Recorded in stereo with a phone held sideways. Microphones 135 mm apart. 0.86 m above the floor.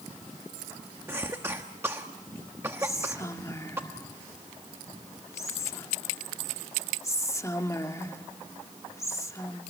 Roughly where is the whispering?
Left.